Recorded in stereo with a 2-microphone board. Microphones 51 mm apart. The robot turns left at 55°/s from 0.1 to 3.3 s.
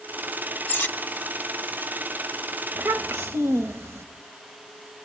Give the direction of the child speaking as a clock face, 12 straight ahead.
3 o'clock.